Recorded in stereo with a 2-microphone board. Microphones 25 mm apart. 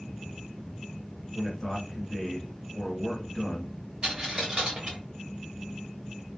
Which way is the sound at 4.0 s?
30° right (ahead or behind).